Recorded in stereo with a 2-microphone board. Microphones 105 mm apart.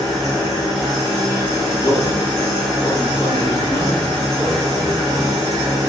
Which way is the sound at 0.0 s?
Centre (ahead or behind).